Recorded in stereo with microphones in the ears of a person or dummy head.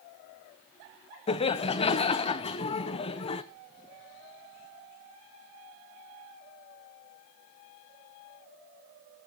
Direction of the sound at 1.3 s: 30° left (ahead or behind).